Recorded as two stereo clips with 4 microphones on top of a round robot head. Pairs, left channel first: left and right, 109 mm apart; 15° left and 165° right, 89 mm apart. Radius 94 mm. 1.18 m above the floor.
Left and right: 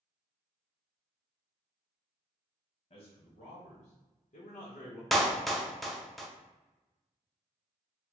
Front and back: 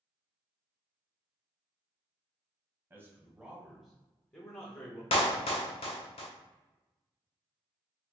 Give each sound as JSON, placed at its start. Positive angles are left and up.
{"t": 2.9, "sound": "a man speaking", "azimuth_deg": 130, "distance_m": 1.0}
{"t": 5.1, "sound": "a clap", "azimuth_deg": 0, "distance_m": 0.6}